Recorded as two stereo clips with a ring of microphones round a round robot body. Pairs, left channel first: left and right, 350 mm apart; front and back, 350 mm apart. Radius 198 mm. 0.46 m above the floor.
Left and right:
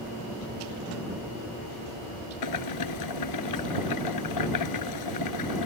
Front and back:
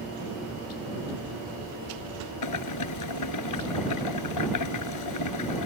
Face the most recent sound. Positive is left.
turn(degrees=45)